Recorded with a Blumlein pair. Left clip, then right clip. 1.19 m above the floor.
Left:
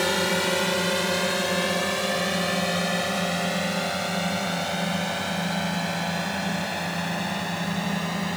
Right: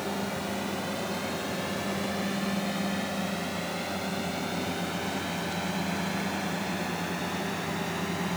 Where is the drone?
35° left; by 8.4 s 15° left.